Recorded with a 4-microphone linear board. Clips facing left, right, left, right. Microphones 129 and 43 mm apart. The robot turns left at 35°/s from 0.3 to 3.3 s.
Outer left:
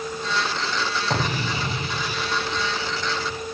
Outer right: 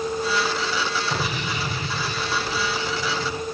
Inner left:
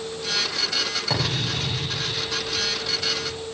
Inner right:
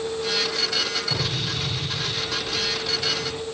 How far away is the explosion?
About 8 m.